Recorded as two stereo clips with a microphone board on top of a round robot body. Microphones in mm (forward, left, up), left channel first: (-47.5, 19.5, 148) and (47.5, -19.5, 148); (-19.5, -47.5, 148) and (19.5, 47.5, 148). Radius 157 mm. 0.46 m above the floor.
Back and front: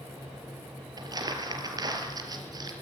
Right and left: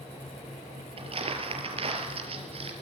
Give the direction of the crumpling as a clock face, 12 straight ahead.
11 o'clock.